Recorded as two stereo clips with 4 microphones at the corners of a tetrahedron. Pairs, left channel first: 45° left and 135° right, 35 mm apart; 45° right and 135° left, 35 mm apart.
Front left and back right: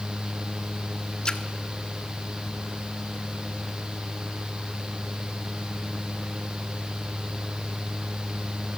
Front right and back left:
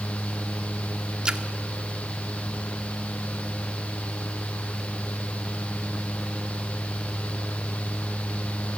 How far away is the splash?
About 1.1 m.